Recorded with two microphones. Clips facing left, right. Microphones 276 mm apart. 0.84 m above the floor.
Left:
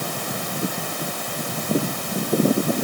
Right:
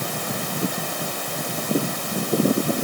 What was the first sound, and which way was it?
Only background noise.